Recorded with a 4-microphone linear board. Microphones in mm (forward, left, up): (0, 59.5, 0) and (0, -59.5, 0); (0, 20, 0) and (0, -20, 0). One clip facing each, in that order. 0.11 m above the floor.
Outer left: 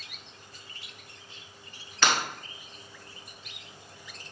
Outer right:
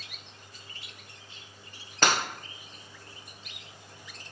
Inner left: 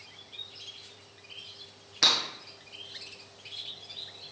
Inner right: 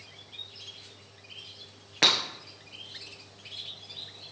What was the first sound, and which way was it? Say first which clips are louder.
Breaking glass: outer right 1 dB, inner right 2 dB; 45° right (ahead or behind).